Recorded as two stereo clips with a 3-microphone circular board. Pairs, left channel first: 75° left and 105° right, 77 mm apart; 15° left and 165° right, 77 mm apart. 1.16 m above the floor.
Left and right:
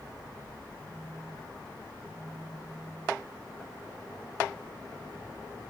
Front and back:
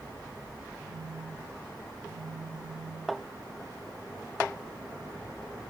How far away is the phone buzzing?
About 3.5 m.